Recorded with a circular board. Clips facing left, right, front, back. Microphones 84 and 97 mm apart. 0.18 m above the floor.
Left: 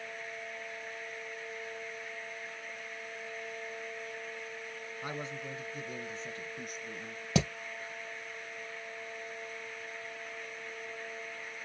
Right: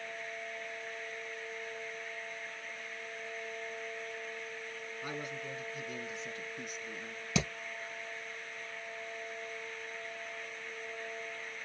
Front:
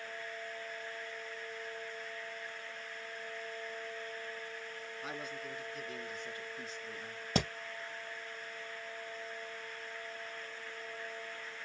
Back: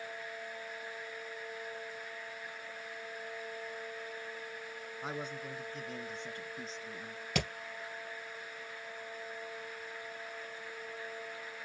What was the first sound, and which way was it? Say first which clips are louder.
A man speaking: left 1 dB, back 3 dB; 145° left.